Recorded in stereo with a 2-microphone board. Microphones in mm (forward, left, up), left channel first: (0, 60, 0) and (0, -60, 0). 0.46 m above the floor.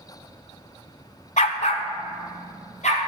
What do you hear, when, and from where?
1.4 s a dog barking: 80° left, 0.6 m; by 3.0 s 85° left, 2.5 m